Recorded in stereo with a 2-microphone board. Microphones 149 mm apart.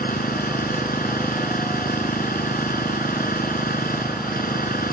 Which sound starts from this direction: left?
An engine running, at 0.0 s.